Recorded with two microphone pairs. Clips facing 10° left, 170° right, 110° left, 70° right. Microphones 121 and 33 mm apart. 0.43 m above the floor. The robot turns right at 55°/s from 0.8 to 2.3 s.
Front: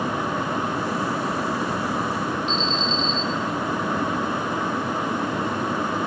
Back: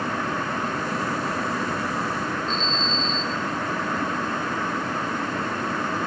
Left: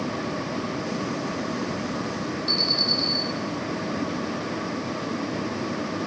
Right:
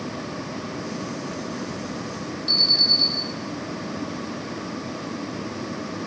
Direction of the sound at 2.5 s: 5° left.